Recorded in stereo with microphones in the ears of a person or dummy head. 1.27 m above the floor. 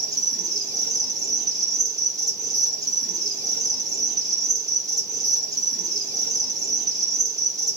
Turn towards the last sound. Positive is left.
turn(degrees=-20)  # may be behind; listen again after turning